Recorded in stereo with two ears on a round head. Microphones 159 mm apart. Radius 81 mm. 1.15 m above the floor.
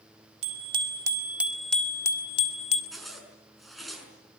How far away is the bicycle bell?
About 2.5 m.